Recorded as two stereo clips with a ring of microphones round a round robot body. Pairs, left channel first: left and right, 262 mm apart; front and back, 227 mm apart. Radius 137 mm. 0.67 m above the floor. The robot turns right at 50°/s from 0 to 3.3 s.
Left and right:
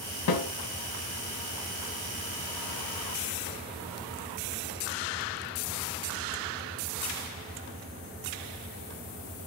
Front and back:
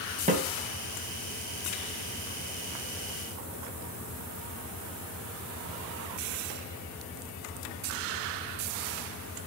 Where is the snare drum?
120° left, 2.5 m; by 0.5 s 130° left, 2.5 m.